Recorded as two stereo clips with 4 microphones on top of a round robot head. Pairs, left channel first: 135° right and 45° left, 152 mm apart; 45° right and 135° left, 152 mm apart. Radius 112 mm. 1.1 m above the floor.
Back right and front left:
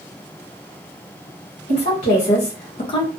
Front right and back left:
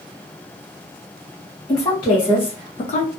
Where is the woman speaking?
105° right, 1.4 m; by 3.1 s 70° right, 0.5 m.